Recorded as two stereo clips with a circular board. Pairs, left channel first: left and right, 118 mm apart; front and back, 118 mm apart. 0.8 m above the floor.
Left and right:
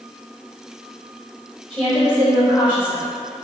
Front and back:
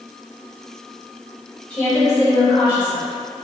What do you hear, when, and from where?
1.7 s a woman speaking: 75° right, 1.5 m; by 3.1 s straight ahead, 1.4 m